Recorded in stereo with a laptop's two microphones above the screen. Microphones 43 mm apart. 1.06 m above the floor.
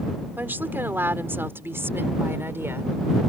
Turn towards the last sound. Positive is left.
turn(degrees=-85)